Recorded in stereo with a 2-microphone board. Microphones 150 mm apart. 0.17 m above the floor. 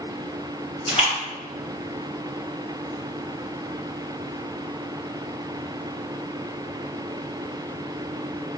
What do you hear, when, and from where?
0.9 s a splash: 40° left (ahead or behind), 2 m